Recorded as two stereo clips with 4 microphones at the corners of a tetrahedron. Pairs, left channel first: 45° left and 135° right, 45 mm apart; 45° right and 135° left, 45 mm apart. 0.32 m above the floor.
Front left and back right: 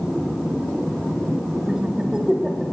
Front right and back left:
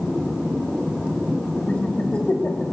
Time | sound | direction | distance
1.7 | laughter | 85° right | 1.1 m